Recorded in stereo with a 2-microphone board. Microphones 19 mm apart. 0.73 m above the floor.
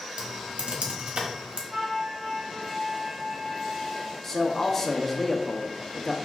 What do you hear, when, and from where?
0.2 s typing on a keyboard: 70° right (ahead or behind), 1.0 m
1.7 s a flute: 50° right (ahead or behind), 2 m
4.2 s a man speaking: 15° left (ahead or behind), 0.7 m